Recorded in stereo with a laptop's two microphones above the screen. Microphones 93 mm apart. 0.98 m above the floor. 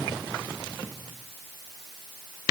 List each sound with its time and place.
Only background noise.